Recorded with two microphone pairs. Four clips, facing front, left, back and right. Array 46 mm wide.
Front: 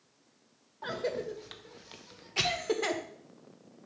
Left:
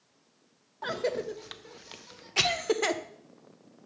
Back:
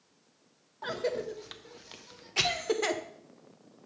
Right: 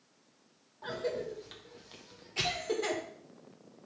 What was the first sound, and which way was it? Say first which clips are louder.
A cough: left 5 dB, back 1 dB; 90° left.